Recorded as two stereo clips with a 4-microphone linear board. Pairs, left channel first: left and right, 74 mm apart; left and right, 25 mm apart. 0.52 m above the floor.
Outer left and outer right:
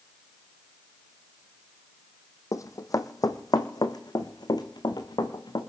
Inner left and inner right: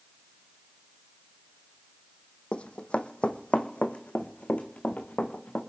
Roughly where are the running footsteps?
Left.